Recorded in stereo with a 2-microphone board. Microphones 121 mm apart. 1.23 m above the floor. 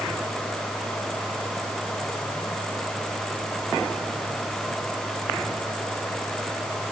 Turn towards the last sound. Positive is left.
No sound to turn to.